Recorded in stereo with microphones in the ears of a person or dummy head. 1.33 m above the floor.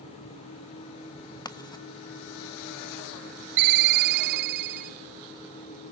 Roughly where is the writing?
Left.